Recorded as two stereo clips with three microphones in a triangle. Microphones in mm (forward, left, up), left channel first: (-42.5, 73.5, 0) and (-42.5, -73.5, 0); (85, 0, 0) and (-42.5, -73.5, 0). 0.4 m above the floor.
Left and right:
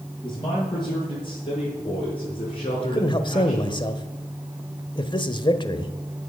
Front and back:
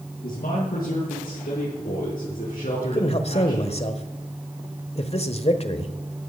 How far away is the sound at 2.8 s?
About 1.2 m.